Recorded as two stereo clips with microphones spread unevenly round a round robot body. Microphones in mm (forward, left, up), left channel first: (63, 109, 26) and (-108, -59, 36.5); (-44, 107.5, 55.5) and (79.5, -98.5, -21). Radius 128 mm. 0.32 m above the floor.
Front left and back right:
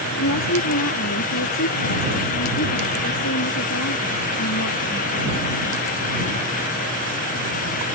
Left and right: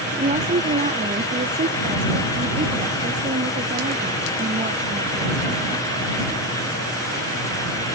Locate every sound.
0.1 s a woman speaking: 5° left